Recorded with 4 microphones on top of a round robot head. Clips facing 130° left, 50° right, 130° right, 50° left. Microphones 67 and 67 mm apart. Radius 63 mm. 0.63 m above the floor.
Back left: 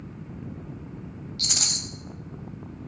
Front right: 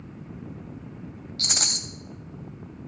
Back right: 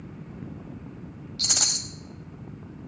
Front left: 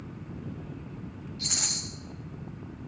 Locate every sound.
1.4 s a rattle: 105° right, 0.6 m